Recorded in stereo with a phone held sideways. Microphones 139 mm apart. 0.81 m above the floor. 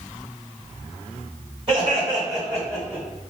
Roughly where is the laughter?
Right.